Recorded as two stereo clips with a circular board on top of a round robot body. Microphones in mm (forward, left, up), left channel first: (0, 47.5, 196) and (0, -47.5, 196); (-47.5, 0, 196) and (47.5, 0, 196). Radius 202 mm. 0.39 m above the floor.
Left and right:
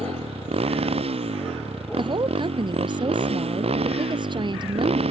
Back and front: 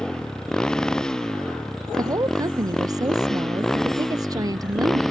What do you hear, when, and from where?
0.0 s a motorcycle: 95° right
2.0 s a woman speaking: 50° right